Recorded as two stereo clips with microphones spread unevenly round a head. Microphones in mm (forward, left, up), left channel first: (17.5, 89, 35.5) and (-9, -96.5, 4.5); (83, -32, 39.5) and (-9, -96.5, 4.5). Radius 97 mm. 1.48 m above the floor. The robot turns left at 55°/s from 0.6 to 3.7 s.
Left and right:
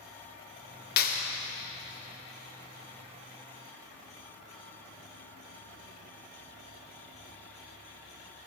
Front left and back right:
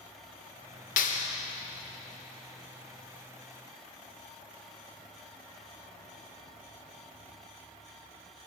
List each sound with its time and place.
1.0 s a clap: 40° left, 1.6 m; by 1.3 s 20° left, 1.6 m